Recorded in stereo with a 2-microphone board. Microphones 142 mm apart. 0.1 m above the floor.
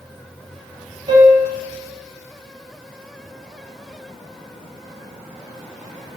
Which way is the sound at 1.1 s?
35° right (ahead or behind).